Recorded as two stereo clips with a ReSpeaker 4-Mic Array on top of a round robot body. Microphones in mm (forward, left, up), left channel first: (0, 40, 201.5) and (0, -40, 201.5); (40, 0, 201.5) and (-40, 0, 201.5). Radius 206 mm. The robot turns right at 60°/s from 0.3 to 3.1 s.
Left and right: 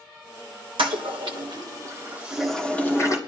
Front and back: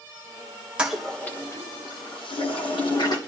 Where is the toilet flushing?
100° right, 1.6 m; by 3.2 s 40° left, 1.6 m.